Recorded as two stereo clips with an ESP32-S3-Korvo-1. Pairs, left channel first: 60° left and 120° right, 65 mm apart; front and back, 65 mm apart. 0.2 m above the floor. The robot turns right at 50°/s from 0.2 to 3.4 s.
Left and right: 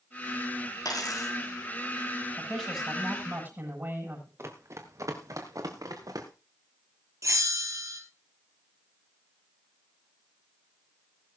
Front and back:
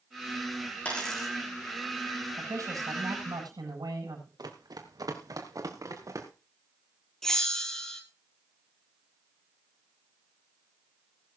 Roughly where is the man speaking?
Behind left.